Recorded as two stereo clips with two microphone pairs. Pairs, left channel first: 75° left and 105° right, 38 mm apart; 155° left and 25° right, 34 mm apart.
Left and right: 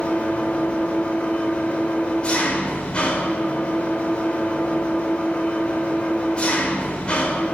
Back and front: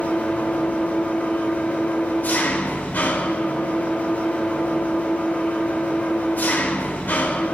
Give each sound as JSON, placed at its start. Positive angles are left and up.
{"t": 0.0, "sound": "an engine running", "azimuth_deg": 135, "distance_m": 3.5}